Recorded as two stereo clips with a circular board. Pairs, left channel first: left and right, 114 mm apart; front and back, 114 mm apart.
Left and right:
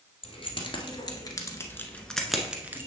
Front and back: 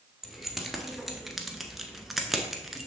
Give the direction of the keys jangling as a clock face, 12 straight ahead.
9 o'clock.